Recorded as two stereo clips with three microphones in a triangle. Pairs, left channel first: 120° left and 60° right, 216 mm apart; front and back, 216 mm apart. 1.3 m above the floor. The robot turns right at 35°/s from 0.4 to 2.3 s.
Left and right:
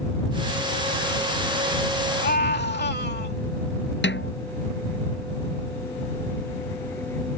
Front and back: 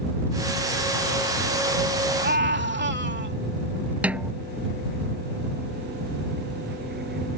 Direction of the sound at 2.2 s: 150° left.